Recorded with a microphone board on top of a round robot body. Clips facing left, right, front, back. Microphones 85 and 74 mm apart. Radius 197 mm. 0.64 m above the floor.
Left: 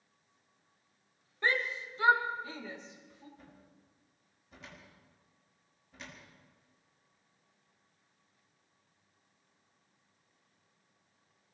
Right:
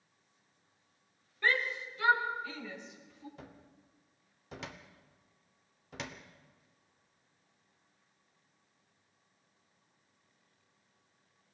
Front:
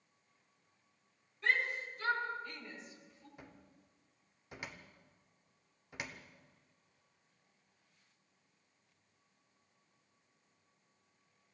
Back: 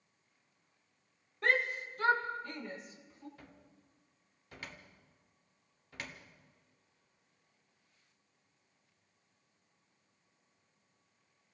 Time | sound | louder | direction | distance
1.4 | a shout | even, back 3 dB | 155° left | 3 m
3.4 | a cupboard door | right 4 dB, front 1 dB | 75° right | 1.0 m